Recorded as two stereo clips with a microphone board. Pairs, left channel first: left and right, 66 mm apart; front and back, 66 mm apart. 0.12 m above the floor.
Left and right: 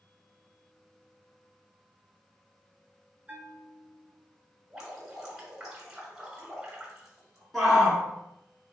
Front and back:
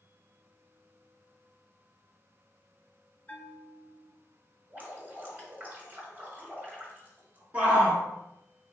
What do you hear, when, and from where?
3.3 s a bell: 45° right, 0.9 m
4.7 s dripping: 165° right, 1.9 m
7.5 s a shout: 175° left, 1.8 m